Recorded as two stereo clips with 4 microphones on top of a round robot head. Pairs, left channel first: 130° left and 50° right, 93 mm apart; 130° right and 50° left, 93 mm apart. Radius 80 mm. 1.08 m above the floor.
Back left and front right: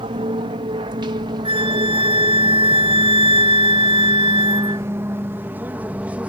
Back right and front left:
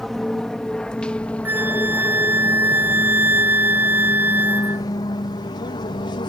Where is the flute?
20° right.